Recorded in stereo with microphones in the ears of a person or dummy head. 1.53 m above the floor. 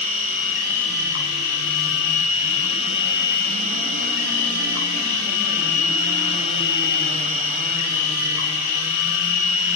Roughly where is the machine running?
Left.